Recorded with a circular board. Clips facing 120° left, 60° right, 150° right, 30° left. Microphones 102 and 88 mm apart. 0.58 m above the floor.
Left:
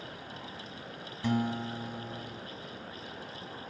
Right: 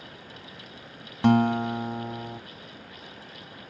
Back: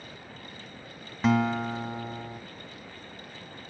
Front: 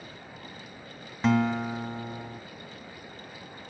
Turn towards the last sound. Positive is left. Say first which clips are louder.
# right 10 dB, even
turn(degrees=-60)